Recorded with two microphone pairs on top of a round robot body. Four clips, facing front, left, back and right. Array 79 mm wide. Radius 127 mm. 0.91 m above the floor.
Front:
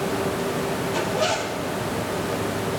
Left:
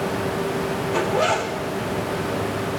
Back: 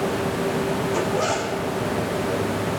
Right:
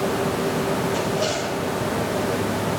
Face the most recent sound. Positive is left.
turn(degrees=105)